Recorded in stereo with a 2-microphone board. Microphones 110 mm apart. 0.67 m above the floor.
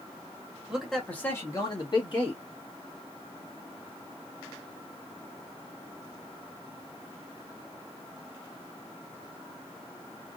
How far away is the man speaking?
About 1.3 m.